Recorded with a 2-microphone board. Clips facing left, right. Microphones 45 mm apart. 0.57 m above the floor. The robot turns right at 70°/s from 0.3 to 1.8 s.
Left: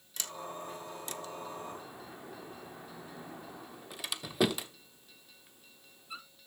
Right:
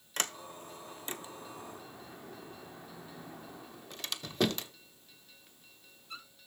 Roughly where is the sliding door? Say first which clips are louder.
Right 2 dB; right.